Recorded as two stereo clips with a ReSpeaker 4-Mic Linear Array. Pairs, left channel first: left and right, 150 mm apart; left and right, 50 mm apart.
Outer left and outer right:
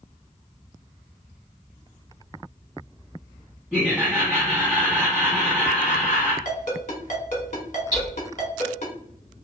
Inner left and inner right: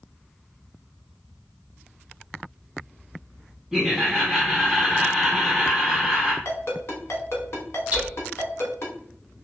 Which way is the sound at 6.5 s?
55° left (ahead or behind).